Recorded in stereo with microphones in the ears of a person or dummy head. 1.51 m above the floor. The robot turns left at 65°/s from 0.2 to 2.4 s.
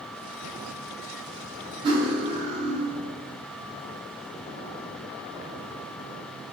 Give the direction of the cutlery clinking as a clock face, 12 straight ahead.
2 o'clock.